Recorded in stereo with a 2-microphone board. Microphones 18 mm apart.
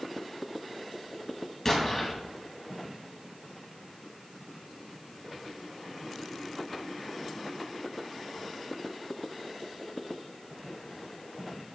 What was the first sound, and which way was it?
An explosion, 15° left (ahead or behind).